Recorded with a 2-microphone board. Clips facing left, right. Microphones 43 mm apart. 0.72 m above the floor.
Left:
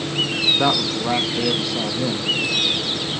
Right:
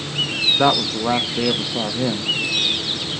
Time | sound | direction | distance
0.6 | a woman speaking | 15° right (ahead or behind) | 1.0 m